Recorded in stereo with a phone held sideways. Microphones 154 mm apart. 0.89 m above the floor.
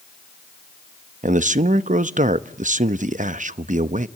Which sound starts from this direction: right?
A man speaking, at 1.2 s.